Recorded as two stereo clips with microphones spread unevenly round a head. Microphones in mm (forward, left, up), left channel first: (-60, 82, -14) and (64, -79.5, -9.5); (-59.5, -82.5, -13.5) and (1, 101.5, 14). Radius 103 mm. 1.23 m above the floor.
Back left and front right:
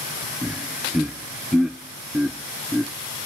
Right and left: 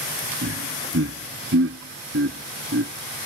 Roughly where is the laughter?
Ahead left.